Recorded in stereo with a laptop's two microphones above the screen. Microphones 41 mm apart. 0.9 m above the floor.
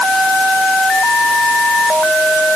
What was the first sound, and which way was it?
Only background noise.